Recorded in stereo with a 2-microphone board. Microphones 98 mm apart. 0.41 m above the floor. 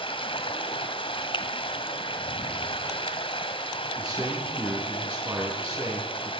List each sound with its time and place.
0.0 s running water: 65° left (ahead or behind), 2 m
1.3 s a finger snap: 60° left (ahead or behind), 1.3 m
4.0 s a man speaking: 15° right (ahead or behind), 5 m